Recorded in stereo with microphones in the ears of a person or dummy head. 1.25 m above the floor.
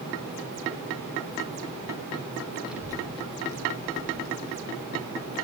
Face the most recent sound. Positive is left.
turn(degrees=-70)  # may be behind; listen again after turning